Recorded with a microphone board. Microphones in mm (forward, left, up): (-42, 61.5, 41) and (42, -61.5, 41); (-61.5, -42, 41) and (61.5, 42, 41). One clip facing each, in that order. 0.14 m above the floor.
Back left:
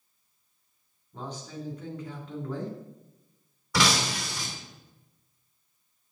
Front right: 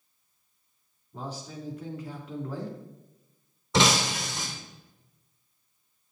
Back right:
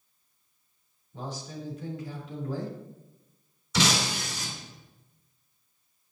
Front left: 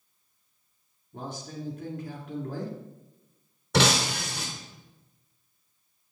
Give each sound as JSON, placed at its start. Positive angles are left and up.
{"t": 1.1, "sound": "a man speaking", "azimuth_deg": 25, "distance_m": 3.0}
{"t": 3.7, "sound": "breaking glass", "azimuth_deg": 10, "distance_m": 2.5}